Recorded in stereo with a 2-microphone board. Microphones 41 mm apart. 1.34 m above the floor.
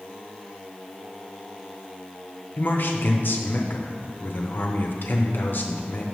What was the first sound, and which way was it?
A man speaking, 55° left (ahead or behind).